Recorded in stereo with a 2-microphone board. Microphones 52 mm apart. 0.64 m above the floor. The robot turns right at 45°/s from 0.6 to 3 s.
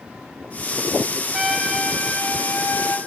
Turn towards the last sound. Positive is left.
turn(degrees=65)